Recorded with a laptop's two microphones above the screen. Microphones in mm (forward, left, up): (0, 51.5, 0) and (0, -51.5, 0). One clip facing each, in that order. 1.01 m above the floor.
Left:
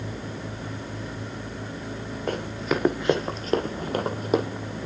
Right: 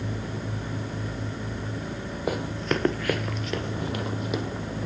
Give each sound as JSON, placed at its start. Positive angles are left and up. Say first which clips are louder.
{"t": 2.3, "sound": "running footsteps", "louder": "even", "side_deg": -5, "distance_m": 1.8}